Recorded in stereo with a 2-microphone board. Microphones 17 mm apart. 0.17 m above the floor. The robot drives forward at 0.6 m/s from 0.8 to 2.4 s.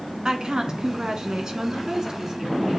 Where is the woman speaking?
45° right (ahead or behind), 1.6 m; by 2.8 s 40° right (ahead or behind), 1.8 m.